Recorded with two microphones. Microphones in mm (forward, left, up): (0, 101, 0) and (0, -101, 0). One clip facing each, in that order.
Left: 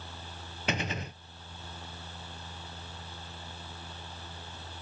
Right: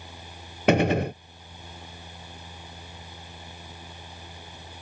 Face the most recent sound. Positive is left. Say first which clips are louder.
# right 14 dB
turn(degrees=-70)  # may be behind; listen again after turning